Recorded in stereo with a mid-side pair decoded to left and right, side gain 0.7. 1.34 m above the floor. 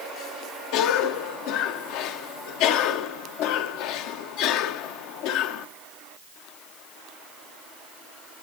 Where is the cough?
65° left, 1.4 m.